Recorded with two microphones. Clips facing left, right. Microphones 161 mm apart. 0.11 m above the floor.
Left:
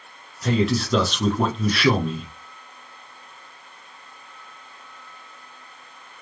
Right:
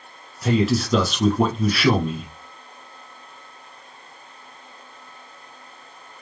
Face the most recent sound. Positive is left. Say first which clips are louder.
# right 2 dB
turn(degrees=-5)  # may be behind; listen again after turning